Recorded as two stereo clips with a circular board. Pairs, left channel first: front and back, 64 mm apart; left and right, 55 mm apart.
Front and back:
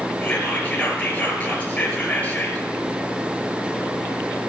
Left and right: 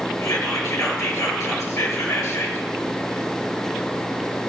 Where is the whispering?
70° left, 5 m.